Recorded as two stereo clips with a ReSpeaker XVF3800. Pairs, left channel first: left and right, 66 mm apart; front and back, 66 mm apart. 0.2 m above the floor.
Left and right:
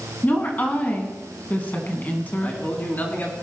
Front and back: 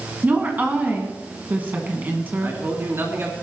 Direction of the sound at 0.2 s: 135° left.